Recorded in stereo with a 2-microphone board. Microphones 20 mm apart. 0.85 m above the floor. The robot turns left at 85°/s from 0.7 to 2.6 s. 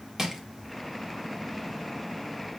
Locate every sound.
0.2 s crushing: 30° right (ahead or behind), 1.4 m